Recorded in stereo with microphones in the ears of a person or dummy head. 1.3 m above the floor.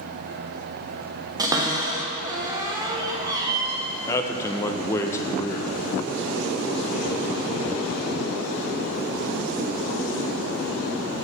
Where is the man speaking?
15° left (ahead or behind), 0.5 m.